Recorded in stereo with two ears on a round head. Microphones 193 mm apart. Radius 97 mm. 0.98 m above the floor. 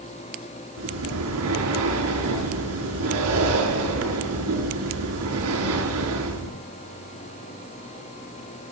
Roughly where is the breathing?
Right.